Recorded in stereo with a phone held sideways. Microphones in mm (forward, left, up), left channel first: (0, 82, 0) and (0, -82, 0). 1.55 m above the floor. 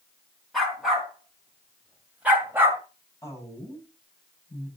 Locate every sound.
0.5 s a dog barking: centre (ahead or behind), 4.5 m; by 2.8 s 15° right (ahead or behind), 2.0 m
3.2 s a woman speaking: 15° left (ahead or behind), 8.5 m